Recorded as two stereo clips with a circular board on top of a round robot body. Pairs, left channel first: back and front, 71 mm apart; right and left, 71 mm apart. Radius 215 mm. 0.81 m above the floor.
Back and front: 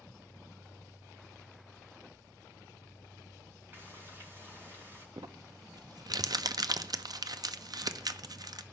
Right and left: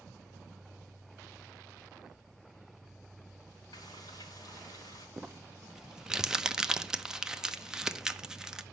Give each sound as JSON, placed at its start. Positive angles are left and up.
{"t": 3.7, "sound": "frying", "azimuth_deg": -60, "distance_m": 2.5}
{"t": 5.2, "sound": "crumpling", "azimuth_deg": 10, "distance_m": 0.9}